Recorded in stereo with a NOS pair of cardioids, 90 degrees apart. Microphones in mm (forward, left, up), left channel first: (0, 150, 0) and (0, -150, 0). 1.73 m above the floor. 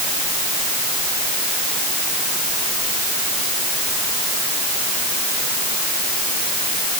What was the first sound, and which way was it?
Only background noise.